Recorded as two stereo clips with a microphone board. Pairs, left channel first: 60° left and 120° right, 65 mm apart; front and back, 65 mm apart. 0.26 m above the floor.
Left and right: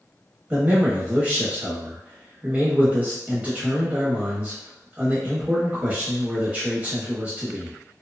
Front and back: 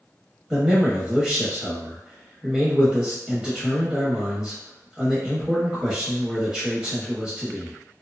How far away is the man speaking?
About 0.9 m.